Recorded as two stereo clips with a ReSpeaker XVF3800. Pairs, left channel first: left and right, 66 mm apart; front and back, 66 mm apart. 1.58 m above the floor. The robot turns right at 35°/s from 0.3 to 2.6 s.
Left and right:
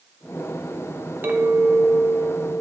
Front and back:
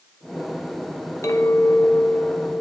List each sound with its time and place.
1.2 s a clink: 35° right, 1.1 m; by 2.6 s 10° left, 1.1 m